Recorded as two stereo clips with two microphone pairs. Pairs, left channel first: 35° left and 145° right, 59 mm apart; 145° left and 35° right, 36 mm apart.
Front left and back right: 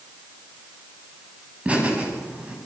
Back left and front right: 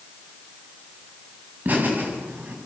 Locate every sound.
1.6 s laughter: 75° right, 6.5 m